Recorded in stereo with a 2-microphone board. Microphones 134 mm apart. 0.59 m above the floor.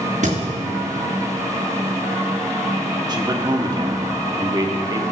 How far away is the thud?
About 2.5 m.